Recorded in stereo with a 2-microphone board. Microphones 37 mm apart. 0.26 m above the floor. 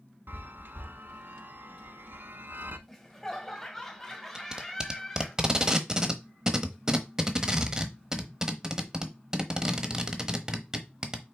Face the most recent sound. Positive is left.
turn(degrees=-20)  # may be behind; listen again after turning